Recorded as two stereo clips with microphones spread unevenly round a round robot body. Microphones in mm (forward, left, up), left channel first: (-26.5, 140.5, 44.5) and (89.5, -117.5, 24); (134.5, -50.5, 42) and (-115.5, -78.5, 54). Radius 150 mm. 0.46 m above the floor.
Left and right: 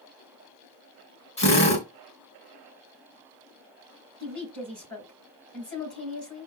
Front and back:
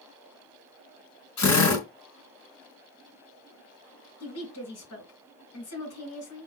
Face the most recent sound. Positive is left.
turn(degrees=25)